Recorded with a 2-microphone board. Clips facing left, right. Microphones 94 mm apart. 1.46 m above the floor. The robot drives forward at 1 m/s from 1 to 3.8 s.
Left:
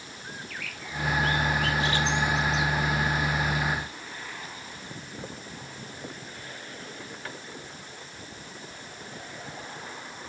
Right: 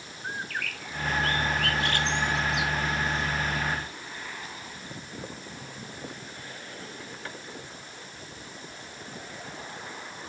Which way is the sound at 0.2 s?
55° right (ahead or behind).